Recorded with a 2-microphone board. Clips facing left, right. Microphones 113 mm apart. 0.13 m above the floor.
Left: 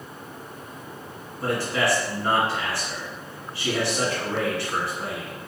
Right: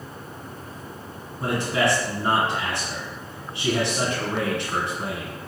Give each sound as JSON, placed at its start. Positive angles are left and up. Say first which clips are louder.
{"t": 1.4, "sound": "a man speaking", "louder": "right 1 dB", "side_deg": -20, "distance_m": 1.5}